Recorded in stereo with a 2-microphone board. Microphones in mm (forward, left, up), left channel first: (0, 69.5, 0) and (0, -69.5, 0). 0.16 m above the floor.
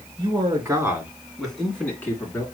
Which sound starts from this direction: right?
A man speaking, at 0.2 s.